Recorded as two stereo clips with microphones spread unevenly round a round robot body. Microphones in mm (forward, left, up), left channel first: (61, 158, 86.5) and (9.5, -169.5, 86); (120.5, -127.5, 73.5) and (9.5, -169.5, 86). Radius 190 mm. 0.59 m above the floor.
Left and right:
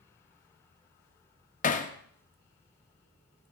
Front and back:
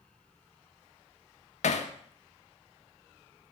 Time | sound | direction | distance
1.6 | hammering | 15° left | 0.5 m